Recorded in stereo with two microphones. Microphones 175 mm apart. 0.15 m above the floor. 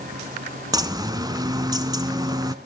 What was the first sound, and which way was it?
A bird, 20° right (ahead or behind).